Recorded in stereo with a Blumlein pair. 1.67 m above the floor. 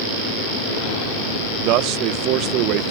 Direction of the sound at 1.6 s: 40° right.